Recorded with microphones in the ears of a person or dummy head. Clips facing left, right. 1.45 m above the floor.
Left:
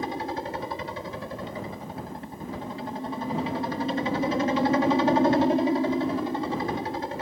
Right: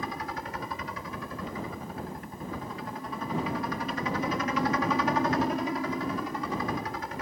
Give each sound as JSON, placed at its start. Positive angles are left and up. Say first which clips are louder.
{"t": 0.0, "sound": "a helicopter", "louder": "left 5 dB", "side_deg": 30}